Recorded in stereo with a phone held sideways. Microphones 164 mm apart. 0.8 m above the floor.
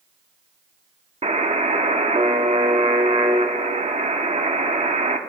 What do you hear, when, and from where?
1.2 s a buzzer: 40° right (ahead or behind), 0.8 m